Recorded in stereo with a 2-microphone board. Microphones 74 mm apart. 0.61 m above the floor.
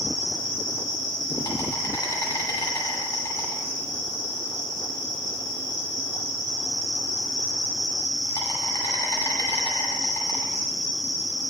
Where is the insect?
75° left (ahead or behind), 2.0 m.